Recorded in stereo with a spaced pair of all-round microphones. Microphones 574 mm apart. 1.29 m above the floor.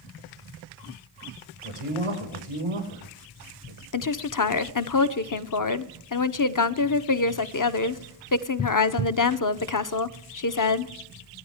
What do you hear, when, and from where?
1.6 s a man speaking: 65° right (ahead or behind), 5.5 m
3.9 s a woman speaking: 35° left (ahead or behind), 0.6 m